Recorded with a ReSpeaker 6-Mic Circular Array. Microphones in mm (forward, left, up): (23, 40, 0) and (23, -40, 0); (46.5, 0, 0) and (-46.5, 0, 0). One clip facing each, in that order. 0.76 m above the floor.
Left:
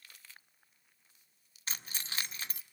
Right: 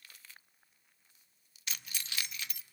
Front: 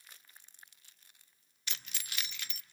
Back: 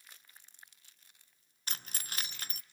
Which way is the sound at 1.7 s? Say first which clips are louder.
Left 1 dB, back 2 dB; 140° left.